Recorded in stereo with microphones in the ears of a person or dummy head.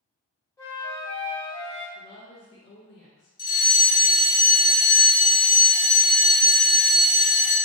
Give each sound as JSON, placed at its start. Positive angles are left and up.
{"t": 0.6, "sound": "a flute", "side_deg": 15, "distance_m": 1.0}
{"t": 1.9, "sound": "a woman speaking", "side_deg": 75, "distance_m": 0.9}
{"t": 3.4, "sound": "a fire alarm", "side_deg": 25, "distance_m": 1.1}